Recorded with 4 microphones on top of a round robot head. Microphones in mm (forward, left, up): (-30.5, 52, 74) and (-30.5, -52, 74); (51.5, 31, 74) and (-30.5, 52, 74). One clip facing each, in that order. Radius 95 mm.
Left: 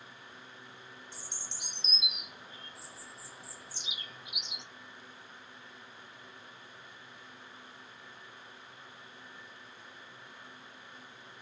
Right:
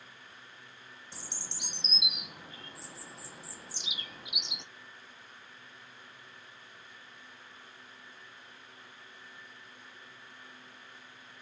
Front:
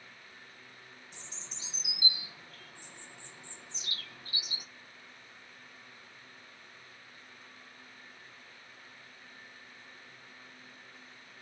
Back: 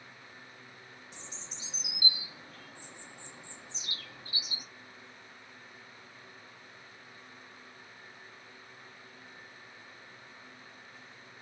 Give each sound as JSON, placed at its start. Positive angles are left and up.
{"t": 1.1, "sound": "a bird", "azimuth_deg": -115, "distance_m": 0.6}